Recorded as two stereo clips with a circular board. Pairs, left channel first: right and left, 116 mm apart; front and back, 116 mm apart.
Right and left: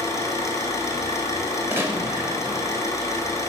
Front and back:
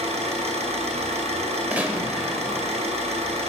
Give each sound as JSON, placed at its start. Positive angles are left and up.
{"t": 0.0, "sound": "an engine running", "azimuth_deg": -155, "distance_m": 1.7}
{"t": 1.7, "sound": "a gunshot", "azimuth_deg": 120, "distance_m": 1.2}